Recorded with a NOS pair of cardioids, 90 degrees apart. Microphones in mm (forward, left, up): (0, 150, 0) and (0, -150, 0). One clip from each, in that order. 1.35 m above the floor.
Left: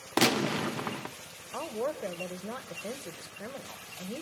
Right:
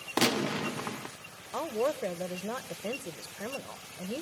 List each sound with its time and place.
0.2 s a gunshot: 10° left, 0.6 m
1.5 s a woman speaking: 15° right, 1.1 m